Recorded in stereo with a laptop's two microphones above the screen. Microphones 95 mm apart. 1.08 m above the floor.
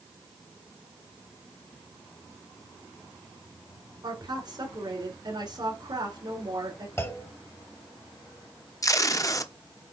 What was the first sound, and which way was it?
A woman speaking, 50° right (ahead or behind).